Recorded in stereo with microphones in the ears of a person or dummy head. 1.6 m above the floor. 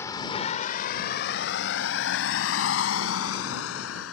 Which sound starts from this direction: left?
A vehicle, at 0.0 s.